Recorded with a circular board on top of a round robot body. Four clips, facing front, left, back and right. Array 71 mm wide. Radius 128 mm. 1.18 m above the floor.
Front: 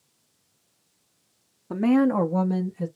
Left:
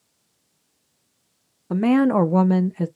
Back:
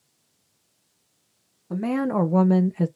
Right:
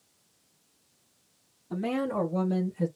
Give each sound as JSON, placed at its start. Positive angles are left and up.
{"t": 1.7, "sound": "a woman speaking", "azimuth_deg": 75, "distance_m": 0.7}